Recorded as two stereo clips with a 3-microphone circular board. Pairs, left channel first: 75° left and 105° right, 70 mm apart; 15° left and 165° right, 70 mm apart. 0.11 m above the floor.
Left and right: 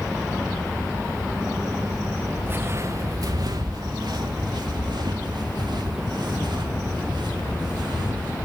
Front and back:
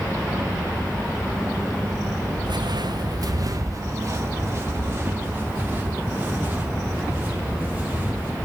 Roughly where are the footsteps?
Behind.